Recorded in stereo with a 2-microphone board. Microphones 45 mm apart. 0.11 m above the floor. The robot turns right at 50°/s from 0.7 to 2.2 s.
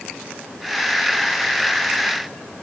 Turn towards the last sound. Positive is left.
No sound to turn to.